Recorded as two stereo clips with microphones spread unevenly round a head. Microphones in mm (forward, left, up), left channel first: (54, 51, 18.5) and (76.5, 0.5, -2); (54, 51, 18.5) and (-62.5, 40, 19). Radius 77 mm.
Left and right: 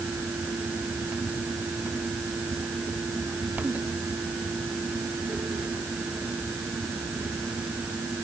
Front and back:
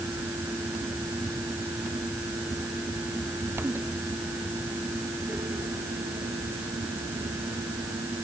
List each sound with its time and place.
Only background noise.